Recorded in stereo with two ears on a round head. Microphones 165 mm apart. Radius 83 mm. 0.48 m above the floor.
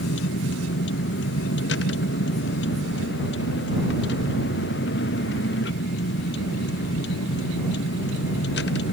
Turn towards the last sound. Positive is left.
turn(degrees=60)  # may be behind; listen again after turning